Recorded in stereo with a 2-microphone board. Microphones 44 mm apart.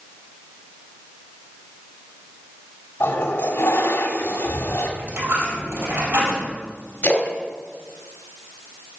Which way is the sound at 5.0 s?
70° right (ahead or behind).